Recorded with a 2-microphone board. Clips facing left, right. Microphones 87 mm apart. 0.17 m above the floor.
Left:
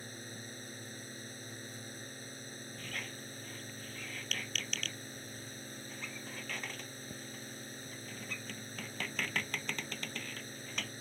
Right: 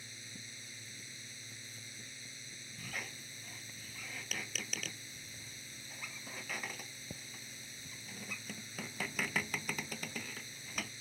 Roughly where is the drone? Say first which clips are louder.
Left 6 dB; left.